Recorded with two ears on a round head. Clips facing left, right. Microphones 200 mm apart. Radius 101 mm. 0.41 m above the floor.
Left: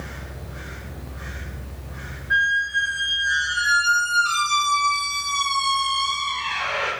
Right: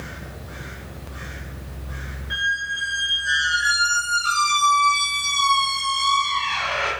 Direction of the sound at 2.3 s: 45° right (ahead or behind).